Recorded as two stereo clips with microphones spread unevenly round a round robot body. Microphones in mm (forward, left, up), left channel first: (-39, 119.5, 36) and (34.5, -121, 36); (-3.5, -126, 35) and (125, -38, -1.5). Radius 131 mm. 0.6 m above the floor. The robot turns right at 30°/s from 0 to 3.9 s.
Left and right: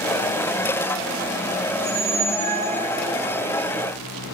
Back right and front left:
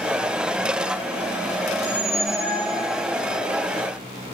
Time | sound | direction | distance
1.7 | a squeak | 70° right | 4.5 m